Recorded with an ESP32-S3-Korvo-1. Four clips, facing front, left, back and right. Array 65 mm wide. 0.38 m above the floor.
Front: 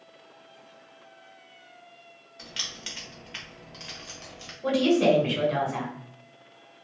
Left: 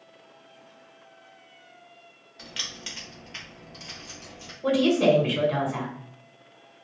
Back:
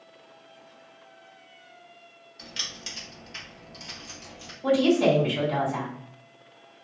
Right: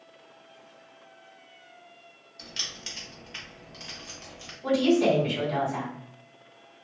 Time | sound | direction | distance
2.4 | keys jangling | 75° left | 1.0 m
4.6 | a woman speaking | 55° left | 1.8 m